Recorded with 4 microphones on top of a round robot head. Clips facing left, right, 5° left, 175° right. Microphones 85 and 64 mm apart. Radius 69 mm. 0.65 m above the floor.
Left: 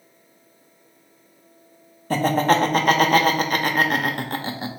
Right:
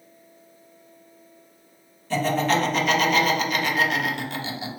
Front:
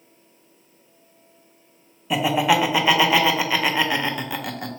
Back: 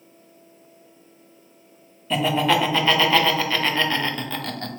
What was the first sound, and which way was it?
Laughter, 85° left.